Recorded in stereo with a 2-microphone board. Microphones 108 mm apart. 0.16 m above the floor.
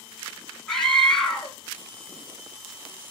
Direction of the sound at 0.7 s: 5° left (ahead or behind).